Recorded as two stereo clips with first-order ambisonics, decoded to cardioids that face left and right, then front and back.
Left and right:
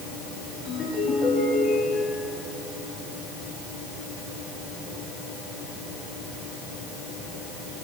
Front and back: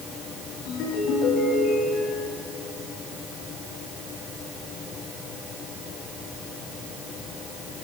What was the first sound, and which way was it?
A ringtone, 30° left.